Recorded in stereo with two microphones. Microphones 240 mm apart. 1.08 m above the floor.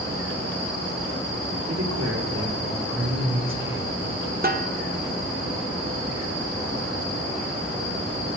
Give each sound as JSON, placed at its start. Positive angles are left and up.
{"t": 1.7, "sound": "a man speaking", "side_deg": -85, "distance_m": 3.0}
{"t": 4.4, "sound": "a snare drum", "side_deg": -40, "distance_m": 1.1}